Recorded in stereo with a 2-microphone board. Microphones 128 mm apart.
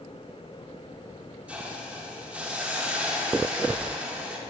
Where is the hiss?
10° right (ahead or behind), 1.6 m.